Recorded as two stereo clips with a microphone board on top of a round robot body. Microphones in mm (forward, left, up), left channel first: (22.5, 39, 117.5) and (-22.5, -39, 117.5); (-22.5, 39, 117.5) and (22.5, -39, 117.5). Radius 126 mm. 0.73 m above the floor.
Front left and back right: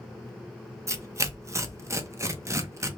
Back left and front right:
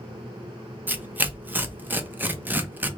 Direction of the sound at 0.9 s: 110° right.